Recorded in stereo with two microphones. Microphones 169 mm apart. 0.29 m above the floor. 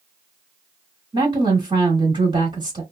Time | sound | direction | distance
1.1 | a woman speaking | 30° right (ahead or behind) | 1.1 m